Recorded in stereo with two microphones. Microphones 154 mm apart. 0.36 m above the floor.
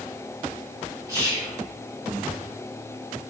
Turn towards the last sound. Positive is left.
turn(degrees=-25)  # may be behind; listen again after turning